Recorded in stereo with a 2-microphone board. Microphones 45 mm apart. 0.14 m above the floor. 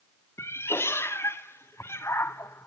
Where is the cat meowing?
85° left, 0.6 m.